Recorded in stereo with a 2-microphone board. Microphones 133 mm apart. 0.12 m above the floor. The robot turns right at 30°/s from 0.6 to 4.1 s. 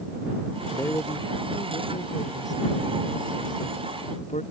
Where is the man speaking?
15° left; by 4.4 s 115° left.